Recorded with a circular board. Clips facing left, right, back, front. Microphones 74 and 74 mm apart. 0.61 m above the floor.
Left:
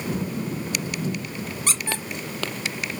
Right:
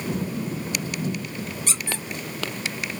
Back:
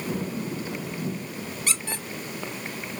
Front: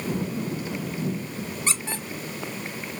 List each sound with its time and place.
1.7 s a squeak: 60° left, 1.2 m